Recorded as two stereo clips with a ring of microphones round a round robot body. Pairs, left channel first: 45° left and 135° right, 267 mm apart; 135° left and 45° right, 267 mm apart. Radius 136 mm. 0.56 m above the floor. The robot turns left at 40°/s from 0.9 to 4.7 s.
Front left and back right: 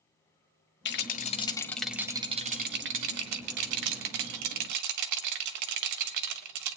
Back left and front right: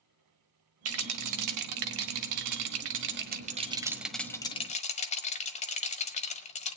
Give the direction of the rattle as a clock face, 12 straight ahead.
12 o'clock.